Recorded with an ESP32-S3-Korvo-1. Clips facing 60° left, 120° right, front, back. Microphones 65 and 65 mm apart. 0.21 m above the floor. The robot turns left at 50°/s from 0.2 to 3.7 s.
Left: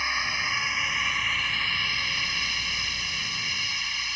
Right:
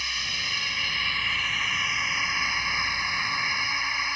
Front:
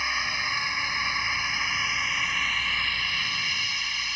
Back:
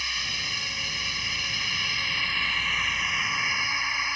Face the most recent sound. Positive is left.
turn(degrees=-145)